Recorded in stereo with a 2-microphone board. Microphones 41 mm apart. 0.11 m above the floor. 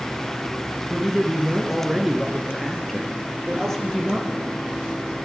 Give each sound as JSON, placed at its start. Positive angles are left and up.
{"t": 0.9, "sound": "a man speaking", "side_deg": -15, "distance_m": 1.2}